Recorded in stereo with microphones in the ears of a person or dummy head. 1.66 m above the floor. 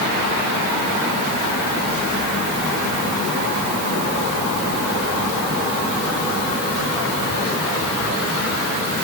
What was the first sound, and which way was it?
Only background noise.